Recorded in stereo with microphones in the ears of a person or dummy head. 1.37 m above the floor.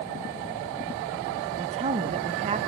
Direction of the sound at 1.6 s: 30° right (ahead or behind).